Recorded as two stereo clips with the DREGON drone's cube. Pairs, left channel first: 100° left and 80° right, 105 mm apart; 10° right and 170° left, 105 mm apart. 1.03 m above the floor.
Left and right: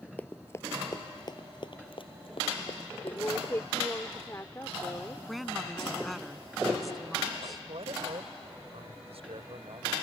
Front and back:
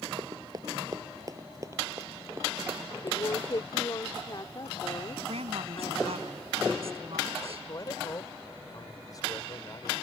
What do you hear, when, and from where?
0.2 s running footsteps: 170° left; by 4.0 s 100° left
3.0 s a woman speaking: 35° left
5.3 s a woman speaking: 170° right
7.4 s a man speaking: 65° right